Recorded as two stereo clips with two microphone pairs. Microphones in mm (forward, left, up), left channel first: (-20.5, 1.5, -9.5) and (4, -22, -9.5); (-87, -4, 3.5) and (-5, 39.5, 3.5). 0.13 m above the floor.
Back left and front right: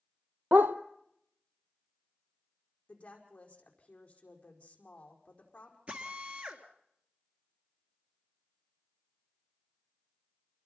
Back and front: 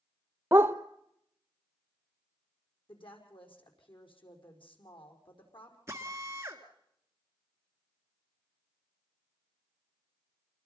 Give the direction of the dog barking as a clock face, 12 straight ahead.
1 o'clock.